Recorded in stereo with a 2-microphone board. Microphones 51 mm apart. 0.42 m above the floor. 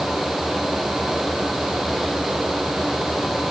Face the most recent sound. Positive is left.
No sound to turn to.